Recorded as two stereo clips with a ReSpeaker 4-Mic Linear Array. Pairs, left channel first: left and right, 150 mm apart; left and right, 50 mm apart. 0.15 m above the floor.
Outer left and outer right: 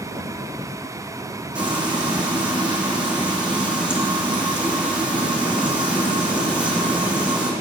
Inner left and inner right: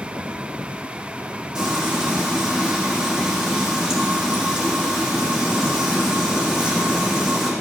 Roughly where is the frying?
Centre.